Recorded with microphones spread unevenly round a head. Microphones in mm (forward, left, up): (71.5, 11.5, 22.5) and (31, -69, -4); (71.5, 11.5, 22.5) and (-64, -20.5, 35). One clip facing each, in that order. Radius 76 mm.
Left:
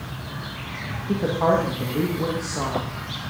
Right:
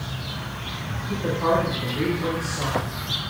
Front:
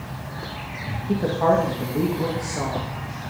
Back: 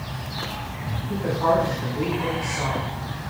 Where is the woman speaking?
45° left, 3 m.